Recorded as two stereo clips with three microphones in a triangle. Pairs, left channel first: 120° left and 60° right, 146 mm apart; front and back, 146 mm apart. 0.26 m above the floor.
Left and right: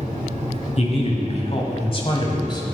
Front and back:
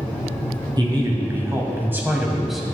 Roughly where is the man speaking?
Behind left.